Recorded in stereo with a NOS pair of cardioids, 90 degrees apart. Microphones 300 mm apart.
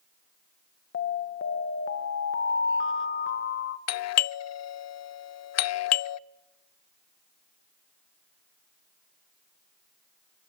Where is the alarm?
45° left, 2 m.